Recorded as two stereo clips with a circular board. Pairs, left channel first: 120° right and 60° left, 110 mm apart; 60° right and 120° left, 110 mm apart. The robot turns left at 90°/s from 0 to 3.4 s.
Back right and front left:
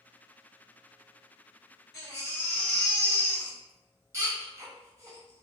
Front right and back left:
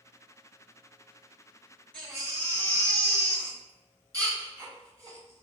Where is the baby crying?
135° right, 1.2 m; by 5.4 s 95° left, 1.2 m.